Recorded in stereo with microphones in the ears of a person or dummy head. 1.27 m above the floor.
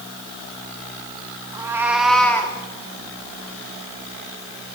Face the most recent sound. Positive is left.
turn(degrees=15)  # may be behind; listen again after turning